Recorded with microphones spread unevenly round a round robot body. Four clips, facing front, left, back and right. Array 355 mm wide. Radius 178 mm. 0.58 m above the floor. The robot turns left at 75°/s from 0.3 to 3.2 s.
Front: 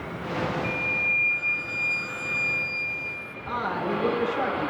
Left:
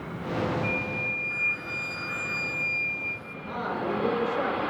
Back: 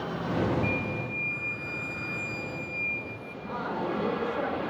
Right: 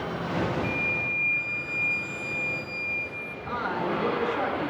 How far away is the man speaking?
About 7 m.